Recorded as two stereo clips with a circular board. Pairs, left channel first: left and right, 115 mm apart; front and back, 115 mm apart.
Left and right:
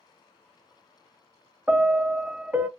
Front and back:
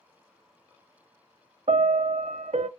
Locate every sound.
1.7 s a piano: 165° right, 0.5 m